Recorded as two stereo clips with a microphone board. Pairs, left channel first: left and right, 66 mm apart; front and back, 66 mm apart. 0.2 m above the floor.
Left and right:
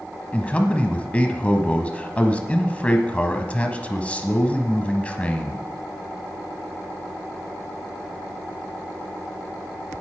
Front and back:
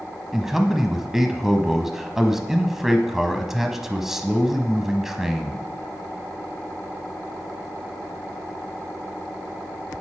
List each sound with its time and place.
0.3 s a man speaking: 105° left, 1.0 m